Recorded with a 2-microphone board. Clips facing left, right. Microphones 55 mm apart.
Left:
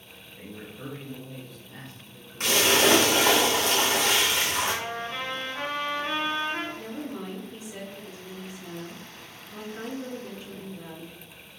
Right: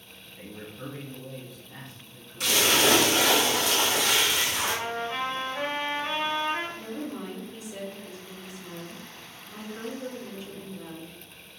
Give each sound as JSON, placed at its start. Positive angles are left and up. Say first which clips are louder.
{"t": 0.2, "sound": "a man speaking", "louder": "even", "side_deg": 0, "distance_m": 1.2}
{"t": 2.4, "sound": "a splash", "louder": "left 2 dB", "side_deg": 40, "distance_m": 1.0}
{"t": 4.6, "sound": "a trumpet", "louder": "even", "side_deg": -20, "distance_m": 1.0}
{"t": 6.8, "sound": "a woman speaking", "louder": "even", "side_deg": -10, "distance_m": 1.6}